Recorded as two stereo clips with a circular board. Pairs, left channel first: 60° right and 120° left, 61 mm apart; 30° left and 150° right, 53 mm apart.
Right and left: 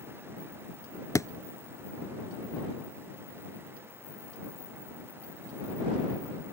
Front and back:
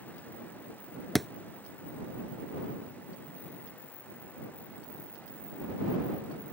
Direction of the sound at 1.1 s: 60° right.